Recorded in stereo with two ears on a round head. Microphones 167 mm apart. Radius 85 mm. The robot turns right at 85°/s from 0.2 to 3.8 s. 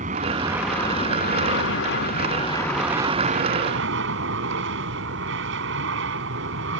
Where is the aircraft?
40° right; by 6.8 s 95° right.